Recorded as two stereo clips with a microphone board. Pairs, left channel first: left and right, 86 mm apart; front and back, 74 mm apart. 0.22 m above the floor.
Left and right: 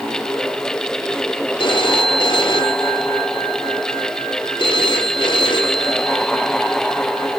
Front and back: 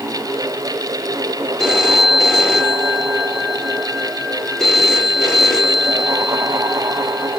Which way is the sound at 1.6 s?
85° left.